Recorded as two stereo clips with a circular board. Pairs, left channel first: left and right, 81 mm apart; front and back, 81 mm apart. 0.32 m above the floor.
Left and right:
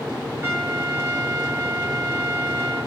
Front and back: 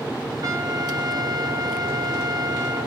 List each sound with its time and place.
0.4 s a trumpet: 145° right, 3 m